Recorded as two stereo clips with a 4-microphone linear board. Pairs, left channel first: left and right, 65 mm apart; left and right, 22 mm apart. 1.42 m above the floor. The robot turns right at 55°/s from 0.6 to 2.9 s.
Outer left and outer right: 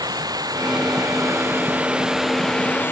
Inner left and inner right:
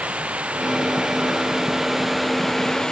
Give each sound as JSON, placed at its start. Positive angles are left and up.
{"t": 0.0, "sound": "running water", "azimuth_deg": -95}